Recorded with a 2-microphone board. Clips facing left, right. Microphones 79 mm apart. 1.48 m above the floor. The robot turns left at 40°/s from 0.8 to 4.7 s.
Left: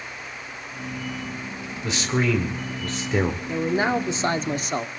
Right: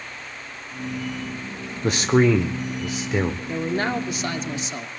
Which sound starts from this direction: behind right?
A man speaking, at 1.8 s.